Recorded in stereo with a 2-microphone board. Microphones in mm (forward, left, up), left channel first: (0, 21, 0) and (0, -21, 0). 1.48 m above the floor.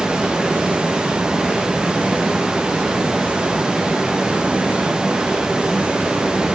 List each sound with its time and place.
0.0 s running water: 20° right (ahead or behind), 0.7 m